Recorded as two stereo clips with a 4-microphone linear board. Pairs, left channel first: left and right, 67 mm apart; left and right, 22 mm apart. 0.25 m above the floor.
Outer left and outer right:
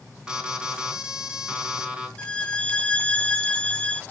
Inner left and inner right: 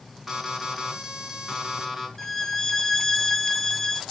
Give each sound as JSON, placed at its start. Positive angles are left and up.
{"t": 0.3, "sound": "an alarm", "side_deg": -15, "distance_m": 3.0}
{"t": 2.2, "sound": "a violin", "side_deg": 20, "distance_m": 0.9}